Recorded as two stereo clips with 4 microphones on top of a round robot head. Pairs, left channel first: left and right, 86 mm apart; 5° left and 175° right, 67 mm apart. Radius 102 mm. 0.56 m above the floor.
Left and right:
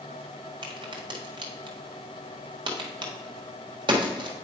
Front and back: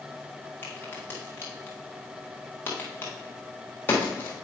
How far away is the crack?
About 1.4 m.